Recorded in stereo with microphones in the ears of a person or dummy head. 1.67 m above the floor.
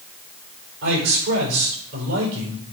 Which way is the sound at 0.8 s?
65° right (ahead or behind).